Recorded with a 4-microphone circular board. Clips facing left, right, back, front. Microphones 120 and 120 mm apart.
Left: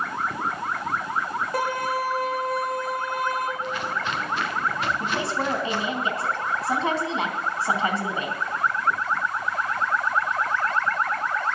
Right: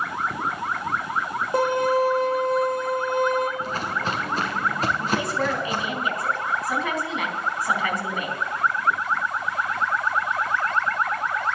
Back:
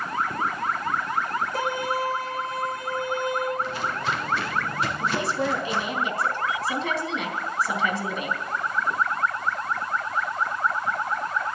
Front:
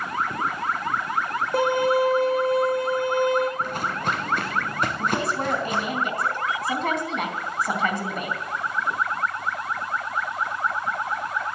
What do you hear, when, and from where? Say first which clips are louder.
1.5 s a violin: right 7 dB, front 10 dB; 25° right, 3 m
3.6 s footsteps: right 1 dB, front 1 dB; 40° right, 2.5 m
5.0 s a woman speaking: right 2 dB, even; 35° left, 3.5 m